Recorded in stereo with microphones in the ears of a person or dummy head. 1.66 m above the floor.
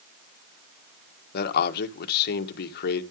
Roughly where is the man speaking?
Left.